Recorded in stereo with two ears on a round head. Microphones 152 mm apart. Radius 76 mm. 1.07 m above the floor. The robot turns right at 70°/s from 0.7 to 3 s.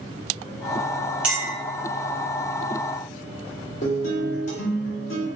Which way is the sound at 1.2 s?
5° right (ahead or behind).